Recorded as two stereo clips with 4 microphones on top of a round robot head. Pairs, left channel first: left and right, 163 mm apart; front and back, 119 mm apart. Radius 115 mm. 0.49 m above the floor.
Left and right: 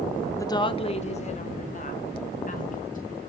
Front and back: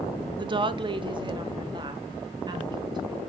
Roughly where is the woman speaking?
Behind left.